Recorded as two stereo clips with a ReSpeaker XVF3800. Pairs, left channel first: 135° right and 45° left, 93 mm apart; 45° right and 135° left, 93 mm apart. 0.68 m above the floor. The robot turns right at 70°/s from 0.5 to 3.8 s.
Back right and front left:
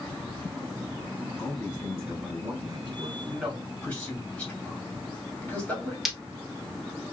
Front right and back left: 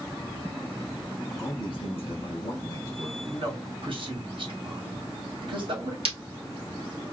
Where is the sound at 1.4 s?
85° right, 1.6 m; by 3.1 s 40° left, 1.6 m.